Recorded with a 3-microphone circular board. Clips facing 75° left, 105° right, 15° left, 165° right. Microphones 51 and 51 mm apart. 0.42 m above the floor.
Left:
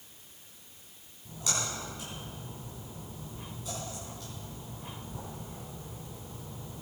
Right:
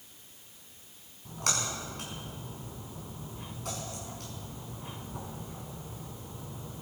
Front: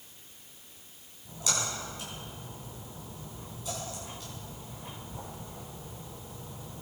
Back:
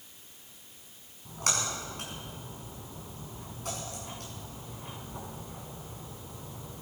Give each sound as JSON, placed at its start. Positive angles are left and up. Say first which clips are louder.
{"t": 1.2, "sound": "a splash", "louder": "right 2 dB, back 1 dB", "azimuth_deg": -130, "distance_m": 4.5}